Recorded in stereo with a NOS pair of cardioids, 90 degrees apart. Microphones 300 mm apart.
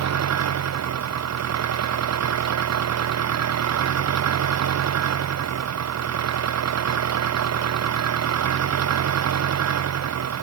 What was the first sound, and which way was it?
An engine running, 60° right.